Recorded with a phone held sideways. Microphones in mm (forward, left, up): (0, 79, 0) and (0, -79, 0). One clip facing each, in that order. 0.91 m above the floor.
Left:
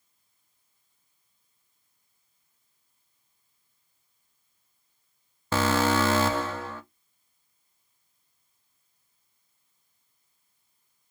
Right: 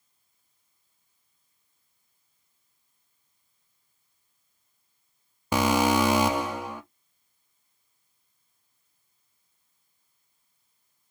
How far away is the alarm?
About 0.5 m.